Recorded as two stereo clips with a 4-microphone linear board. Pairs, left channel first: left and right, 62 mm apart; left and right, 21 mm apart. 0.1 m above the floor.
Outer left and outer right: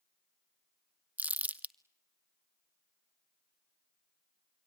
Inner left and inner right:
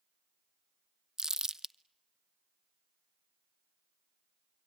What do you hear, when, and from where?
1.2 s crumpling: 25° right (ahead or behind), 0.7 m